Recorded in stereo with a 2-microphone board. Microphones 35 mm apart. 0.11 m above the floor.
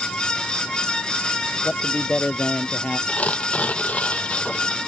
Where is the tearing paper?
40° left (ahead or behind).